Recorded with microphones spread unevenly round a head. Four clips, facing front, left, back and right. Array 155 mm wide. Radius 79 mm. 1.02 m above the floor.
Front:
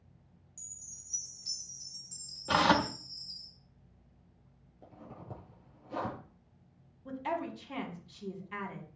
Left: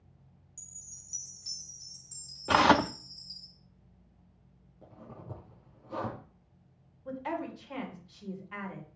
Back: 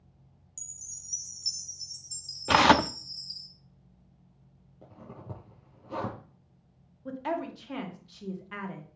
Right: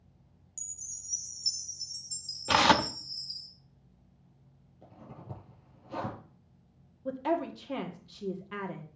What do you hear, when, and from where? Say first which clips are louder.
0.6 s a chime: left 1 dB, back 1 dB; 150° right, 4 m
2.5 s tearing paper: left 1 dB, back 6 dB; 165° left, 0.5 m
4.8 s a zipper: left 1 dB, back 3 dB; 170° left, 5.5 m
7.0 s a woman speaking: right 5 dB, back 3 dB; 100° right, 1.9 m